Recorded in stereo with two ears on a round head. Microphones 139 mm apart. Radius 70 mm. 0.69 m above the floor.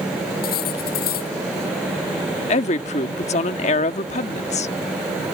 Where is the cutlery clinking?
70° left (ahead or behind).